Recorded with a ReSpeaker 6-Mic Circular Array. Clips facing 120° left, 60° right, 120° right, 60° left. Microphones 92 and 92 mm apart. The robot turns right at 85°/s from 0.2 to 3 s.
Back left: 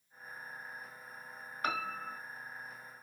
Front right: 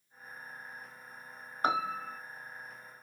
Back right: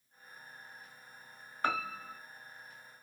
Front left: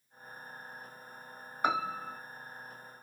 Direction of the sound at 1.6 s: 10° right.